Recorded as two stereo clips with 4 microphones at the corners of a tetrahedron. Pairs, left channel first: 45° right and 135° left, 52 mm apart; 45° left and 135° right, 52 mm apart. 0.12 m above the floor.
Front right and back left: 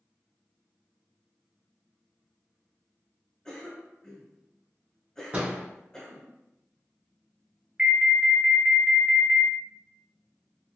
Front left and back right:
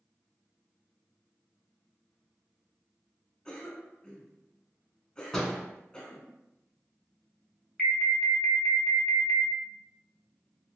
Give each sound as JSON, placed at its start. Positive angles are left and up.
{"t": 3.5, "sound": "a cough", "azimuth_deg": 10, "distance_m": 1.1}
{"t": 5.3, "sound": "a door slam", "azimuth_deg": 115, "distance_m": 1.0}
{"t": 7.8, "sound": "an alarm", "azimuth_deg": 105, "distance_m": 0.9}